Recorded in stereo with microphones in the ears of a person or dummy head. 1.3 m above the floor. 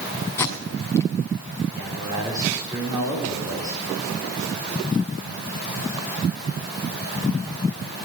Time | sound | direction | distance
0.4 | tape being pulled | 10° left (ahead or behind) | 2 m
1.7 | a man speaking | 20° right (ahead or behind) | 3 m